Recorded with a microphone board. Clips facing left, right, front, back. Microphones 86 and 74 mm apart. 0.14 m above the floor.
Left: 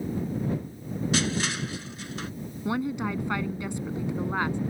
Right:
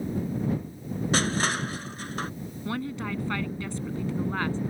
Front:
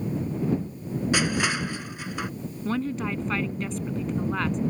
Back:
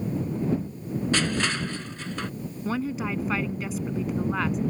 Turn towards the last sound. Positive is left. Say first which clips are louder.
# left 4 dB, front 1 dB
turn(degrees=105)